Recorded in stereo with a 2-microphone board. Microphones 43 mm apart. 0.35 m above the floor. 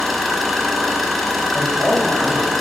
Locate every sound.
0.0 s an engine running: 5° left (ahead or behind), 1.7 m
1.5 s a man speaking: 10° left (ahead or behind), 2 m